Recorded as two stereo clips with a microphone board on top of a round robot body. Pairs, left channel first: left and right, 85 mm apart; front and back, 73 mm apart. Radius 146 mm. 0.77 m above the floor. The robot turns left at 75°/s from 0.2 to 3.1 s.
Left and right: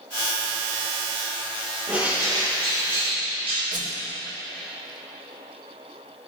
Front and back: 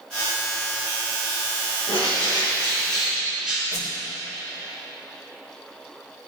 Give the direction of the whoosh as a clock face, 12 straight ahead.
2 o'clock.